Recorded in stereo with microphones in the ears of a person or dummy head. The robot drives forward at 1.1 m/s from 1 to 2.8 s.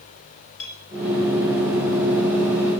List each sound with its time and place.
0.6 s a clink: 85° left, 5 m